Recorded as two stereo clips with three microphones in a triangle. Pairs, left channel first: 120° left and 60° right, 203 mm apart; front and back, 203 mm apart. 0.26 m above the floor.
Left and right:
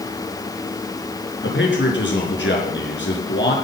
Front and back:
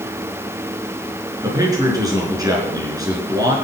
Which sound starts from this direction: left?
A man speaking, at 1.4 s.